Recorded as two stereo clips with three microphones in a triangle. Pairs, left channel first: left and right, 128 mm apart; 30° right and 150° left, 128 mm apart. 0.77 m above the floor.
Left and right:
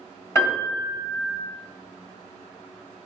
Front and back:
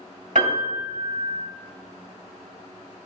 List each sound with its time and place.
0.3 s a piano: 155° left, 1.4 m